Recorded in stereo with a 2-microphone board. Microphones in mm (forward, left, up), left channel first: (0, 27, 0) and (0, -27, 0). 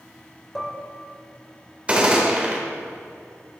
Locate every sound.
0.6 s dishes clattering: 5° left (ahead or behind), 1.0 m
1.9 s a gunshot: 25° right (ahead or behind), 1.2 m